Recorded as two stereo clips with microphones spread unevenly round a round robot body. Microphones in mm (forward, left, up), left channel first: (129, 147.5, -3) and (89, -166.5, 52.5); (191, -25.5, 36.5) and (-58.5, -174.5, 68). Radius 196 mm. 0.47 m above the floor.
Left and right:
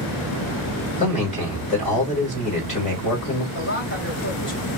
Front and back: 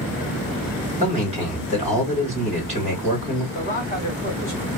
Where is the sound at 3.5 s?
85° left, 1.6 m.